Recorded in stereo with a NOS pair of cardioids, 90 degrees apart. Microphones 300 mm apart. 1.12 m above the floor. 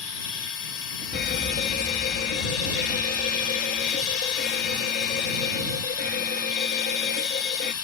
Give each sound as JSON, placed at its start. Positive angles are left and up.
{"t": 0.0, "sound": "a machine running", "azimuth_deg": 55}
{"t": 1.1, "sound": "a fire alarm", "azimuth_deg": 35}